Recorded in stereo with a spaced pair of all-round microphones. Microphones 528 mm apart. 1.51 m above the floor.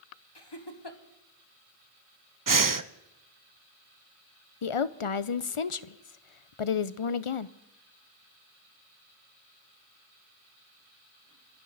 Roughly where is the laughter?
Left.